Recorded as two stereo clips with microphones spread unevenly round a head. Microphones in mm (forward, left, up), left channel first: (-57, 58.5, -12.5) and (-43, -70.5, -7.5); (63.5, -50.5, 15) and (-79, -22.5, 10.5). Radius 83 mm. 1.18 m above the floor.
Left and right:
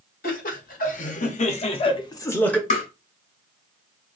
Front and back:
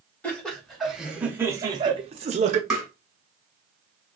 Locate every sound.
0.2 s laughter: 75° left, 1.1 m; by 2.6 s 175° left, 0.6 m
2.7 s tapping: 80° left, 1.3 m